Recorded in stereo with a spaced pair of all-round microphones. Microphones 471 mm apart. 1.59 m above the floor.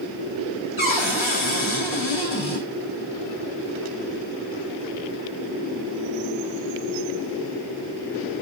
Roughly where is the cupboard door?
Left.